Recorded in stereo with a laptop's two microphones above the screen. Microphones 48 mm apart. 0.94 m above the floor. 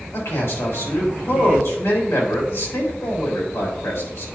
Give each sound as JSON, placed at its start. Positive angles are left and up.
{"t": 0.1, "sound": "a man speaking", "side_deg": 80, "distance_m": 3.5}